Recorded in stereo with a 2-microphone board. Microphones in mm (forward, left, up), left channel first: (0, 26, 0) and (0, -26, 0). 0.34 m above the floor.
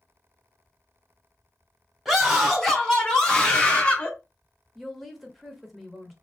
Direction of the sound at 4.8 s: Centre (ahead or behind).